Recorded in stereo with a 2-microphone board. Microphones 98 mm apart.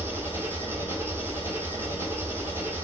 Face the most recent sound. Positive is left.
turn(degrees=-25)  # may be behind; listen again after turning